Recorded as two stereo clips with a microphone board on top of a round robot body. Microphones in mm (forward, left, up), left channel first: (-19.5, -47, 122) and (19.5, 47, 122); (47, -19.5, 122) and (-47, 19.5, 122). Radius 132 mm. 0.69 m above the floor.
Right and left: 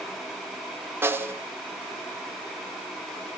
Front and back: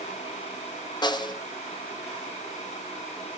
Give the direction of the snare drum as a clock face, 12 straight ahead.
12 o'clock.